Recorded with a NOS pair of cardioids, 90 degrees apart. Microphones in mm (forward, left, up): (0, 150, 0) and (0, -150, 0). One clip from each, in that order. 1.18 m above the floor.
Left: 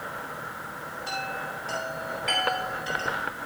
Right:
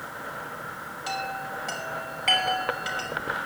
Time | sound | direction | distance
1.1 | a chime | 70° right | 6 m